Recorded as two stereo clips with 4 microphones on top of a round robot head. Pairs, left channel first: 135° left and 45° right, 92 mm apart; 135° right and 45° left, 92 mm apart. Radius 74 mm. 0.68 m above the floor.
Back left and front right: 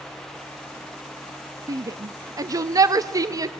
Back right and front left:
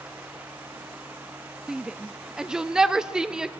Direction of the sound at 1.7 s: 35° right.